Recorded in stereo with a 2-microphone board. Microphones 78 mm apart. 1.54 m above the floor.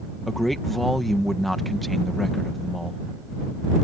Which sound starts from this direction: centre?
A man speaking, at 0.3 s.